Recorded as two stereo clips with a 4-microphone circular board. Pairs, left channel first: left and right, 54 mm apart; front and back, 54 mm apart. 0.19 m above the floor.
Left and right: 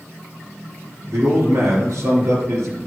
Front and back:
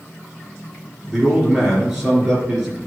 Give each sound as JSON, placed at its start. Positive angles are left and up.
{"t": 1.1, "sound": "a man speaking", "azimuth_deg": -105, "distance_m": 3.0}